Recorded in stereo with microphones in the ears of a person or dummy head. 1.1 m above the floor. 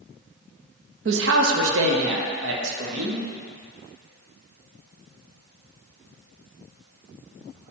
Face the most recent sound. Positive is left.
turn(degrees=-65)  # may be behind; listen again after turning